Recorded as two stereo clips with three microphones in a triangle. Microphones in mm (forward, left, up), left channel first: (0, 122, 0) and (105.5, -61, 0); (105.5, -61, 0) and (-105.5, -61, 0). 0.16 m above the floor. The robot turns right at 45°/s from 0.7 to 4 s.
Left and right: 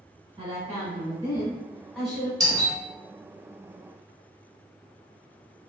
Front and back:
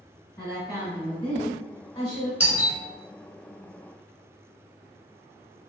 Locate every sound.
0.4 s a woman speaking: 30° right, 1.4 m; by 2.3 s 45° left, 1.4 m
2.4 s a doorbell: 105° right, 1.5 m; by 2.8 s 85° right, 1.5 m